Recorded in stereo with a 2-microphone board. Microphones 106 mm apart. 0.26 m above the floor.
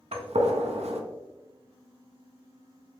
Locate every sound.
0.1 s a gunshot: 75° right (ahead or behind), 0.6 m